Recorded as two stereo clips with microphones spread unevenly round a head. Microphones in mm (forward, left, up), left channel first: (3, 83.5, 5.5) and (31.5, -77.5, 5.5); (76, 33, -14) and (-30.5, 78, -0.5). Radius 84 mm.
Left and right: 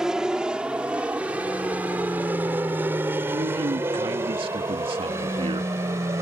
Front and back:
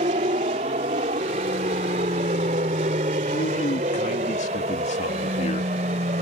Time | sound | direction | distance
0.0 | an aircraft | 165° right | ?
3.3 | a man speaking | 25° right | ?